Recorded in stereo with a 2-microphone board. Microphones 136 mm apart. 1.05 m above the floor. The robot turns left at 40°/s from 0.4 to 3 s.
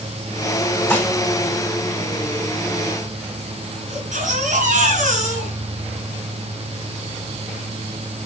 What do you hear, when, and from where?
0.9 s dishes clattering: 15° left (ahead or behind), 2 m; by 1.1 s 25° left (ahead or behind), 2 m
3.9 s a baby crying: 65° right (ahead or behind), 4 m